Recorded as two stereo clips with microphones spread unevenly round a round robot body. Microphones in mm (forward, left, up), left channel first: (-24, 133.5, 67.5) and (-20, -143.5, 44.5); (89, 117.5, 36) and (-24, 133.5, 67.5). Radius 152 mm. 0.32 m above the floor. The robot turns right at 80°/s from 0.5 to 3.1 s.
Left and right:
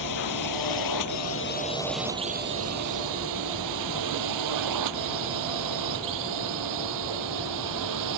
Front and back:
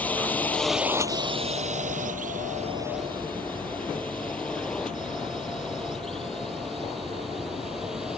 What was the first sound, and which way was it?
A drone, 70° left.